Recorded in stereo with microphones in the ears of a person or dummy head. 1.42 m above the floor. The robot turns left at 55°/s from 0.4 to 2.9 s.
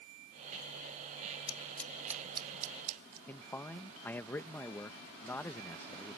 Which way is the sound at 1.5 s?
25° left (ahead or behind).